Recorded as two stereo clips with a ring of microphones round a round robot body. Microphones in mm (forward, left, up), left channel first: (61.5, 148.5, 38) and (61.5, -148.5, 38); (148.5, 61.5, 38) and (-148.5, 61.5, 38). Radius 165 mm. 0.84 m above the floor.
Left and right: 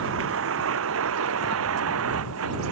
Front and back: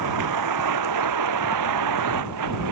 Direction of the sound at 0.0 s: 145° right.